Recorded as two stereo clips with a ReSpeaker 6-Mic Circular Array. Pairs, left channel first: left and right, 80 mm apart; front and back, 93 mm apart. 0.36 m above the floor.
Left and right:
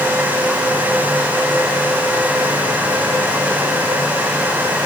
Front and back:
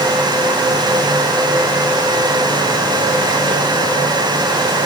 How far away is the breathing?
I don't hear breathing.